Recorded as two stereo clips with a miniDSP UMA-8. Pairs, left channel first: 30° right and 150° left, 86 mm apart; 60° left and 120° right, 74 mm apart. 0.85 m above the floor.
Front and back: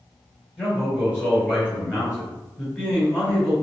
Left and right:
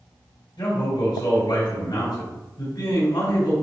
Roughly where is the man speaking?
Ahead left.